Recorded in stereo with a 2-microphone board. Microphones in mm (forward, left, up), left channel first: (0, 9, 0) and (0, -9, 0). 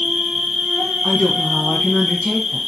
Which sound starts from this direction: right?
An insect, at 0.0 s.